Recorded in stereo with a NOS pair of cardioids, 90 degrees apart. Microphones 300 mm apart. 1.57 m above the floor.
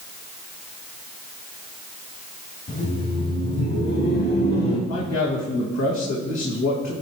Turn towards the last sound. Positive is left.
turn(degrees=65)